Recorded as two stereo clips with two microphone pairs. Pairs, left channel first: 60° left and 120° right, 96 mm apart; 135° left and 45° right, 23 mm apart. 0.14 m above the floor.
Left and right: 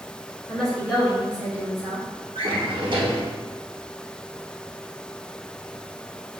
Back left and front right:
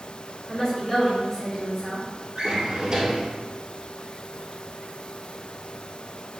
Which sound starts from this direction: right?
A drawer, at 2.4 s.